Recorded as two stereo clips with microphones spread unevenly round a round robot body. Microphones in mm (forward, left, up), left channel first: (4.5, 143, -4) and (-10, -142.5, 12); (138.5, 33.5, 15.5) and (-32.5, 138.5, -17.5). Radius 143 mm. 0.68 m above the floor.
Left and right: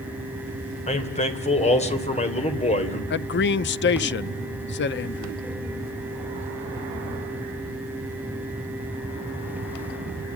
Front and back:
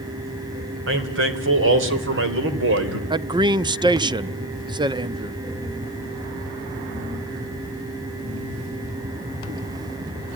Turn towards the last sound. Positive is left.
turn(degrees=105)